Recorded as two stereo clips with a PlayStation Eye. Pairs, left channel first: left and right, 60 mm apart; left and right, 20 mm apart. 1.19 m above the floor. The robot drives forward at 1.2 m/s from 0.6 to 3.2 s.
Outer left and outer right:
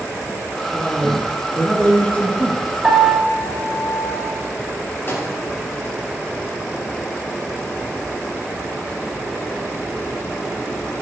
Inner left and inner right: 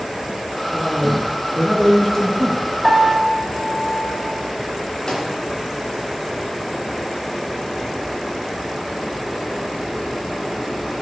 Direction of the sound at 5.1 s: 40° left (ahead or behind).